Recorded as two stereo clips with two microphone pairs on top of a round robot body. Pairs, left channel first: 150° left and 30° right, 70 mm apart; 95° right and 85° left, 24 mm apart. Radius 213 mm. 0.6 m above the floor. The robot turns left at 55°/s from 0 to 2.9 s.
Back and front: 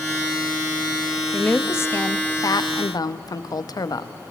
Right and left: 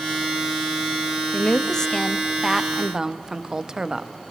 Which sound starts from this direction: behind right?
A woman speaking, at 1.3 s.